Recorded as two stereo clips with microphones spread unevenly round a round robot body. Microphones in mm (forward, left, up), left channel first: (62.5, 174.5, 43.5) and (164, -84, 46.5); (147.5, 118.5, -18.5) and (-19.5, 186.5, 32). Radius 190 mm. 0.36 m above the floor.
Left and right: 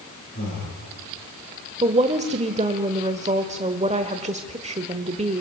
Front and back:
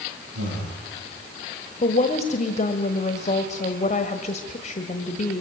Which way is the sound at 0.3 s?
Straight behind.